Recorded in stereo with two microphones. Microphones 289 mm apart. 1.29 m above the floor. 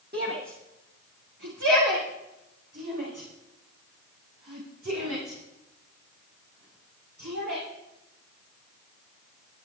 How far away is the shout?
About 1.6 m.